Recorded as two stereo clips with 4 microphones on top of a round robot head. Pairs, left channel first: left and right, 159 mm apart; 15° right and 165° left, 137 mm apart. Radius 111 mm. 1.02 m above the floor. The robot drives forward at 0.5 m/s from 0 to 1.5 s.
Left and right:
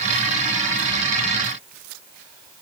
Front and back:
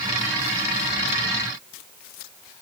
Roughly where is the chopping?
No chopping in this recording.